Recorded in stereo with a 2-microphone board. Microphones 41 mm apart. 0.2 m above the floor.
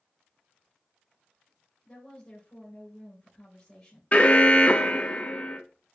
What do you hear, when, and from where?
1.9 s a woman speaking: 25° left (ahead or behind), 3.5 m
4.1 s an alarm: 35° left (ahead or behind), 0.8 m